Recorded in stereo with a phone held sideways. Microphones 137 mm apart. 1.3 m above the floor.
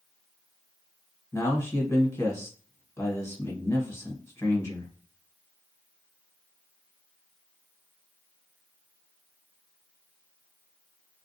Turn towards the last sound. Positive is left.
turn(degrees=20)  # may be behind; listen again after turning